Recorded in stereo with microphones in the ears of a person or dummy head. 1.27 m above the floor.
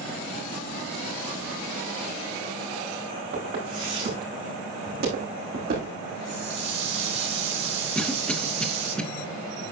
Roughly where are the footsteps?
Right.